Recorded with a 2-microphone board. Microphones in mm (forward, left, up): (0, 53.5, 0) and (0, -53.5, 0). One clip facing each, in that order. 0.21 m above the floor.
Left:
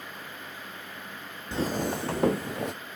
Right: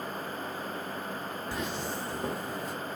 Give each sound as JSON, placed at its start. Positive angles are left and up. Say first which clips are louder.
{"t": 1.5, "sound": "footsteps", "louder": "left 8 dB", "side_deg": 25, "distance_m": 0.6}